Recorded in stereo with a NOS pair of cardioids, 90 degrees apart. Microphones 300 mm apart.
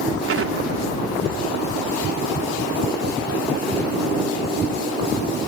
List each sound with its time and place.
0.3 s an explosion: 50° right